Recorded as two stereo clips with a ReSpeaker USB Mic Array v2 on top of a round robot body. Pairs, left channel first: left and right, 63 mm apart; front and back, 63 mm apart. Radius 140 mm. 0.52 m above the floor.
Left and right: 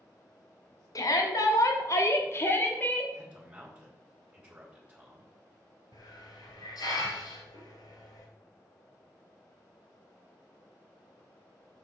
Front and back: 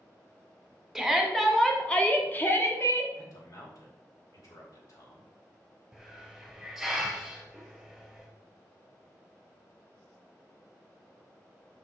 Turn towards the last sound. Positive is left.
turn(degrees=90)